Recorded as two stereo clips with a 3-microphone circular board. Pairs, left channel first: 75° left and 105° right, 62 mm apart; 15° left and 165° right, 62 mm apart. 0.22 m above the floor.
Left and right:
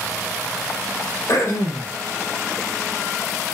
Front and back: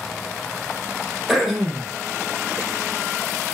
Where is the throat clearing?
110° left, 6 m.